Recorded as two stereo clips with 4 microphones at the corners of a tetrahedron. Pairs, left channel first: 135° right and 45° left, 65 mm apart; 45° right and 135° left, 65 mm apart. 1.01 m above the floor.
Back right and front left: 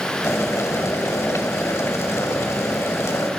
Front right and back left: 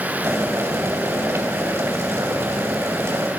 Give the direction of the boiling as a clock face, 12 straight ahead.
6 o'clock.